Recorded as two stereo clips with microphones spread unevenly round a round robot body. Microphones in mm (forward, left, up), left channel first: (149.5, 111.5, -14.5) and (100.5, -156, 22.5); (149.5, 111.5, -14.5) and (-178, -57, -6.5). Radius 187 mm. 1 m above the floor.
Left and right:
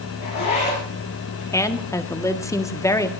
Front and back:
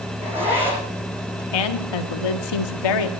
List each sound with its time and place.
0.2 s a zipper: 125° left, 9 m
1.5 s a woman speaking: straight ahead, 1.9 m